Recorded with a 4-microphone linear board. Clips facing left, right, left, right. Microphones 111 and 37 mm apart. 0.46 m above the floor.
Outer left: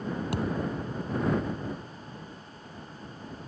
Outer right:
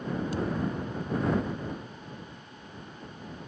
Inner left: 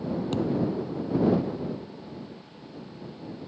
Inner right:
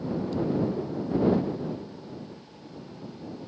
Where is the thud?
70° left (ahead or behind).